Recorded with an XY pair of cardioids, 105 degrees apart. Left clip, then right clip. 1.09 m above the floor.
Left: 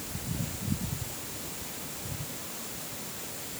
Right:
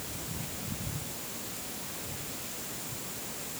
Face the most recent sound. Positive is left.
No sound to turn to.